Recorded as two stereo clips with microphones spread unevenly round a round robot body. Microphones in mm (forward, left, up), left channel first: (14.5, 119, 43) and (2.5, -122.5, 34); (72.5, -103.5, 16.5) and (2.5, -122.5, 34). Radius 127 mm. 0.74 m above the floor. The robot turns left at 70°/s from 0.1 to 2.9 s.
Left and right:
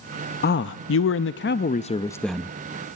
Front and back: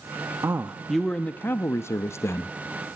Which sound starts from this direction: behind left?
A man speaking, at 0.4 s.